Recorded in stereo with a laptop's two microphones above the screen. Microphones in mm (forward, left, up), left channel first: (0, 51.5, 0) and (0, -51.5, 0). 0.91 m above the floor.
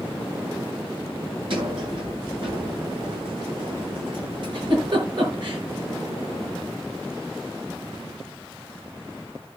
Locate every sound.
1.5 s a sliding door: 55° right (ahead or behind), 7.5 m
4.4 s a giggle: 50° right (ahead or behind), 7 m